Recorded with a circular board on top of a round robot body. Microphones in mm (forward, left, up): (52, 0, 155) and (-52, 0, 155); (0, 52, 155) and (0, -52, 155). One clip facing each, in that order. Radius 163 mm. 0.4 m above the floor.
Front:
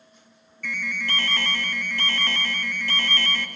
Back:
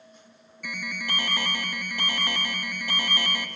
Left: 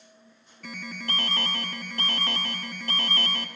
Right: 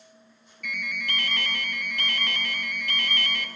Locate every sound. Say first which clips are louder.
0.6 s an alarm: front 3 dB, right 2 dB; 115° left, 1.1 m